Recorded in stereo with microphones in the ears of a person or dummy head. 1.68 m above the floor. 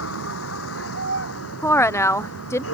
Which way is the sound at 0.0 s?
80° left.